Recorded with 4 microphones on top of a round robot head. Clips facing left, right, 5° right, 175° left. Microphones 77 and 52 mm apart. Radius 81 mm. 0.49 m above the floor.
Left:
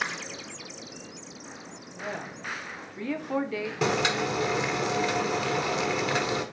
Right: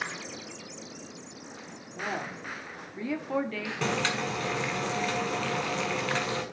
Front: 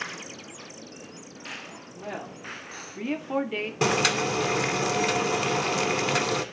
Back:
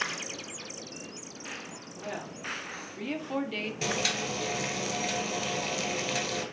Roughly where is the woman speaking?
Right.